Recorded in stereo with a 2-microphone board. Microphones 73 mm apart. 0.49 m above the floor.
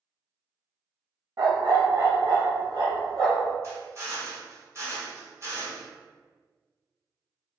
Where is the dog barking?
55° right (ahead or behind), 0.6 m; by 3.5 s 75° right (ahead or behind), 1.8 m.